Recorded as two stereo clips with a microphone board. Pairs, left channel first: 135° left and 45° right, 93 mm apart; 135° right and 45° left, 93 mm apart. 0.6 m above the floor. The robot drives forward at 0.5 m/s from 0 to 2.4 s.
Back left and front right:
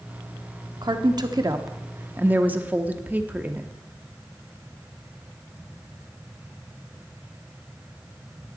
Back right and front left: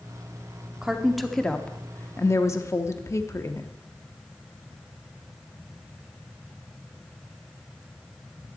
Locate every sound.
0.8 s a woman speaking: 35° right, 1.0 m; by 3.7 s 105° right, 0.8 m